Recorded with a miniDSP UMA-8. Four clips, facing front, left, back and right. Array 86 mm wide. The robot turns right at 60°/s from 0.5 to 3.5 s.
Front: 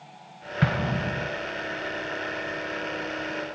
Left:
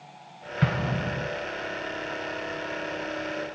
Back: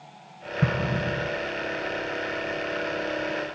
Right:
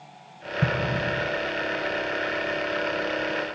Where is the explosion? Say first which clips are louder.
Right 2 dB, even; 15° left, 1.6 m; by 1.3 s 55° left, 1.6 m.